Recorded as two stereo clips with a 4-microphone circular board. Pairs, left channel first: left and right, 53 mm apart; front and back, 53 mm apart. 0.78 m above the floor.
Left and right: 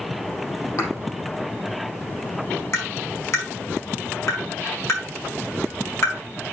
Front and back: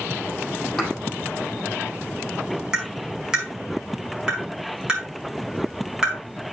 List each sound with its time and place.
0.8 s a thud: 85° left, 4.5 m
2.7 s tapping: 105° left, 5 m